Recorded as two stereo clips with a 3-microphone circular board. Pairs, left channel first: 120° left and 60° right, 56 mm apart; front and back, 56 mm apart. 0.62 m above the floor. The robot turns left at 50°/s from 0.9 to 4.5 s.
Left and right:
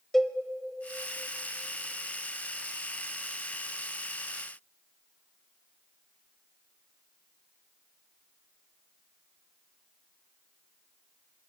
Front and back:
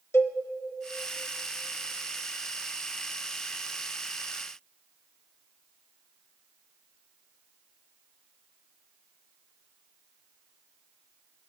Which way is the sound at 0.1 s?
30° left.